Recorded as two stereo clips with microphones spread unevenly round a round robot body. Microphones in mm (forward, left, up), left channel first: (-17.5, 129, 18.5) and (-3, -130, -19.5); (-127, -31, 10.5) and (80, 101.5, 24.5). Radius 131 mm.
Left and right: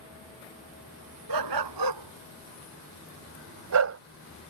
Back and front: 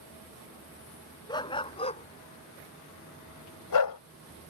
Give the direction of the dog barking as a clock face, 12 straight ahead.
2 o'clock.